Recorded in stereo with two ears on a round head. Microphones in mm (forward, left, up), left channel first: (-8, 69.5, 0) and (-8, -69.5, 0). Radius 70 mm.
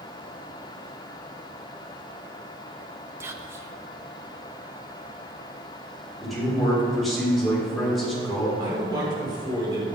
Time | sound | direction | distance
3.2 | whispering | 15° right (ahead or behind) | 1.2 m
6.2 | a man speaking | centre (ahead or behind) | 5 m
8.6 | a man speaking | 30° right (ahead or behind) | 4.5 m